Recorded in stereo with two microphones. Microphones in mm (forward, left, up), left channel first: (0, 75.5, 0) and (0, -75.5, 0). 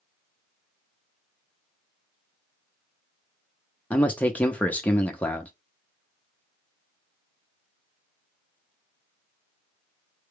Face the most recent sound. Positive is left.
turn(degrees=10)  # may be behind; listen again after turning